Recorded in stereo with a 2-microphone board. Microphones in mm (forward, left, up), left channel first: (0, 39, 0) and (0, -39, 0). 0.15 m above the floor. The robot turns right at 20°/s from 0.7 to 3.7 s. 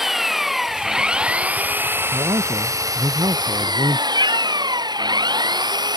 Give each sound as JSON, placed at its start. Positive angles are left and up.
{"t": 0.0, "sound": "an engine running", "azimuth_deg": -175}
{"t": 2.1, "sound": "a man speaking", "azimuth_deg": -105}
{"t": 4.2, "sound": "a cat meowing", "side_deg": -80}